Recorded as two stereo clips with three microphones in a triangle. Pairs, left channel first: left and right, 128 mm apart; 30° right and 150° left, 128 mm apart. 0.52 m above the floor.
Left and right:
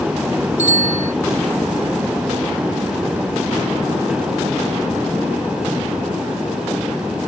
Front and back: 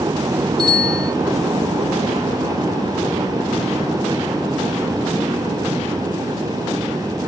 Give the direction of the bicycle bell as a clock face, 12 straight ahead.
9 o'clock.